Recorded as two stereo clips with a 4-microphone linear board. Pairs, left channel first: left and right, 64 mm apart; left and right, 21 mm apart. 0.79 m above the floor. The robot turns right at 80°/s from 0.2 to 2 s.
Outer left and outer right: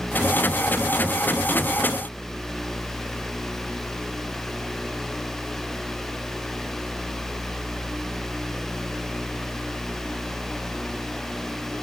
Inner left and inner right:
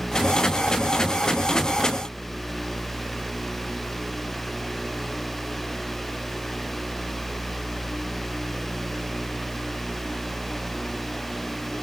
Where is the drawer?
I don't hear a drawer.